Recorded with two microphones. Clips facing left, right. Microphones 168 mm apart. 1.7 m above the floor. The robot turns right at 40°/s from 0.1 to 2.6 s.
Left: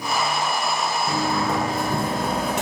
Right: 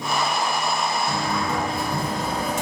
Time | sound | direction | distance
1.1 | a sliding door | 25° left | 0.7 m